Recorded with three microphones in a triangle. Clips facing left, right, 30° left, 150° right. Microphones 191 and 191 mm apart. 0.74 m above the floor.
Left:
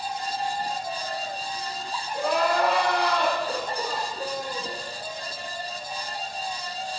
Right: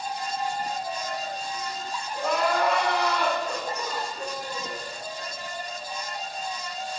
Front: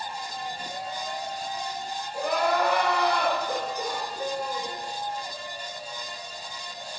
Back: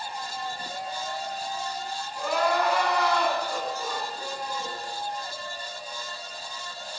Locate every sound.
2.1 s crying: 35° left, 4 m